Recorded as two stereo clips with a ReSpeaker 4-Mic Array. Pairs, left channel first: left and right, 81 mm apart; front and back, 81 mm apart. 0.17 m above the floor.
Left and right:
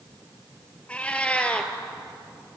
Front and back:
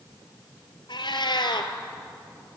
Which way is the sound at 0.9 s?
15° left.